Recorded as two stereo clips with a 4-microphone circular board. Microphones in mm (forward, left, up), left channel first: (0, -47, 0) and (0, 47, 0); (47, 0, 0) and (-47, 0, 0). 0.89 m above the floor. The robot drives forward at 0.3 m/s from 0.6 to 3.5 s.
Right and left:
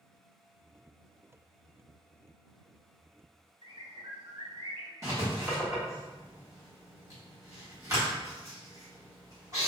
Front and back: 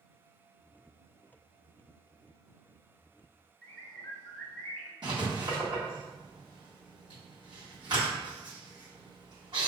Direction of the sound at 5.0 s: 145° left.